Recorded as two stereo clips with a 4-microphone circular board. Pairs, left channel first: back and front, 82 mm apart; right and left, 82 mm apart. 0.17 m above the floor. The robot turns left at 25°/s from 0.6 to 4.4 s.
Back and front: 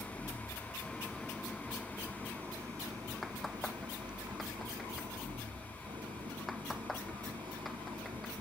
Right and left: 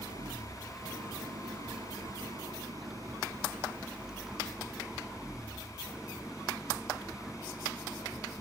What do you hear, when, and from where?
0.0 s an engine running: 105° left; by 8.4 s 10° left